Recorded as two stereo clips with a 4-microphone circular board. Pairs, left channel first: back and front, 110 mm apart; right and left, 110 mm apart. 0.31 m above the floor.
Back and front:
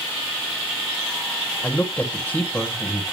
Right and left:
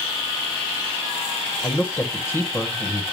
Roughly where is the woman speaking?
Behind right.